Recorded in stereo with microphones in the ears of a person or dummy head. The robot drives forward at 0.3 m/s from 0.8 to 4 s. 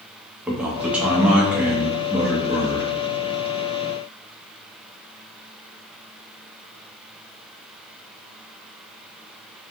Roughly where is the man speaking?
Centre.